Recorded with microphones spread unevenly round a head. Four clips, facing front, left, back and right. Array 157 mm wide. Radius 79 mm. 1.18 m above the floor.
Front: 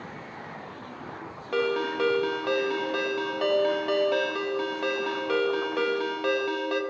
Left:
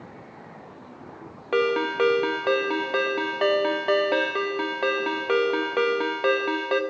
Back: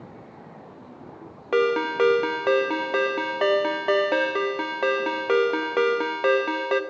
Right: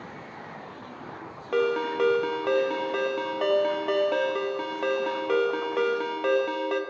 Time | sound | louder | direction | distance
1.5 | a ringtone | left 2 dB, back 5 dB | 150° left | 0.5 m